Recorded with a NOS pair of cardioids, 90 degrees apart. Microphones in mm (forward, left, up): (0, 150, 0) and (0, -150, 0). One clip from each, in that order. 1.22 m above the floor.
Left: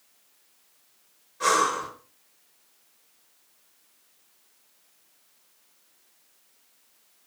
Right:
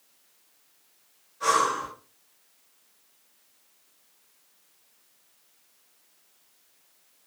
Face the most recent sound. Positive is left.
turn(degrees=65)